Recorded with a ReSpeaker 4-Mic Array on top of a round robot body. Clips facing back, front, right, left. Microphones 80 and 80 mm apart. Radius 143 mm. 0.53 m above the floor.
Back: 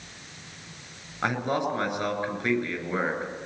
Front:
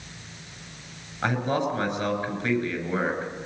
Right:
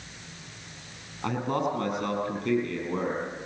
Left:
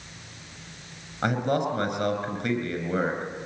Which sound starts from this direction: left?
A man speaking, at 1.2 s.